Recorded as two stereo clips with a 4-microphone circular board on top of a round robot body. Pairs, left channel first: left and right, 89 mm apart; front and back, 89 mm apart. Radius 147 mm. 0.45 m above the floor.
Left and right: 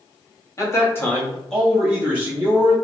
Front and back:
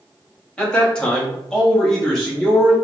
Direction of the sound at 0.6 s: 70° left.